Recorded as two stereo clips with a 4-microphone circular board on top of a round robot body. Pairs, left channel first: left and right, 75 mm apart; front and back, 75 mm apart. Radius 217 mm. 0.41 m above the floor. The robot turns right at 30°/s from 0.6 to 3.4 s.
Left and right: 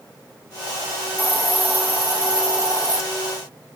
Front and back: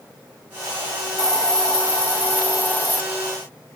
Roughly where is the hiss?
Right.